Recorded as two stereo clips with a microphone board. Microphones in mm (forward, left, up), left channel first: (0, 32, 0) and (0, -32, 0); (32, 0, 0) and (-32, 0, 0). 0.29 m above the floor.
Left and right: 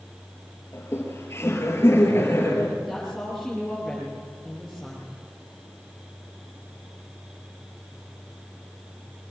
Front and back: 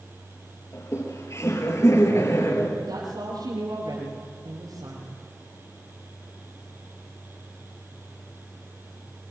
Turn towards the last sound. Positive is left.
turn(degrees=175)